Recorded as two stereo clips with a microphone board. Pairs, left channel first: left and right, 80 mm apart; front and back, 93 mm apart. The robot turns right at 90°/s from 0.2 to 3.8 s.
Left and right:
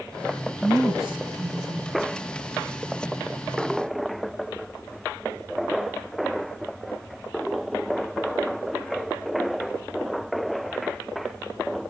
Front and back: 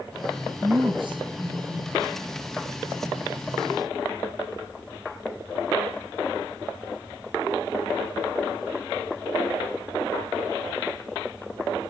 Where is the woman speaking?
150° left, 3 m; by 2.2 s 60° right, 3 m.